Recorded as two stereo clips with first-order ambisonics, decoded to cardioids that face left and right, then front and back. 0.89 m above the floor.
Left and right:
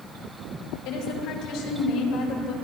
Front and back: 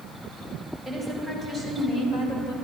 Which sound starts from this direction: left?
A woman speaking, at 0.8 s.